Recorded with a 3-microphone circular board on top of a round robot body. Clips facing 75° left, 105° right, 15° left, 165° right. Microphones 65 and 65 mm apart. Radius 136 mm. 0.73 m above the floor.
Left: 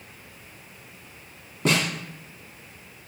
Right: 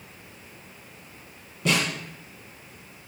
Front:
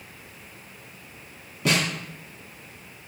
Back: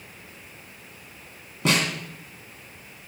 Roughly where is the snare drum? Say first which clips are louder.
Left 1 dB, back 1 dB; behind left.